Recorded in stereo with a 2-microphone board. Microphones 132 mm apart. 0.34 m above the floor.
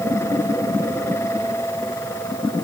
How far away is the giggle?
No giggle in this recording.